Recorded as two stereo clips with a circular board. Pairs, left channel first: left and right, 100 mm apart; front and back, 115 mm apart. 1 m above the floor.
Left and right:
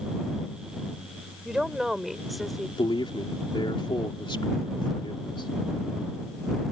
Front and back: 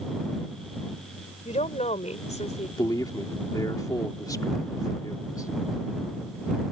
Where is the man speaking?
55° left.